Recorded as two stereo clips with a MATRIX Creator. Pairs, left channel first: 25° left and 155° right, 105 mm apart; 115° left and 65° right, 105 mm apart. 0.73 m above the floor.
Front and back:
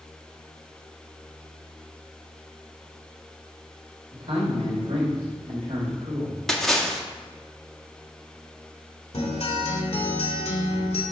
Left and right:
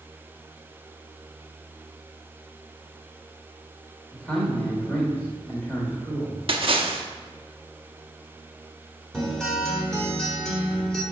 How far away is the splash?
About 1.0 m.